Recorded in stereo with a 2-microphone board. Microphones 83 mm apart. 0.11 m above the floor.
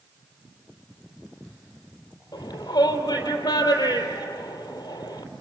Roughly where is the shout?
Left.